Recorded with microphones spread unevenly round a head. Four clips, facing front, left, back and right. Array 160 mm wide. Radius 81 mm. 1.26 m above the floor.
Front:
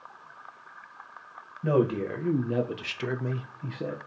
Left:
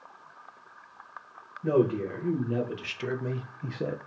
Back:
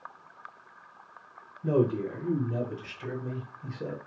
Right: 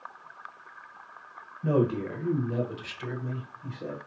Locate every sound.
1.6 s a man speaking: 10° right, 1.2 m; by 4.0 s 80° left, 0.6 m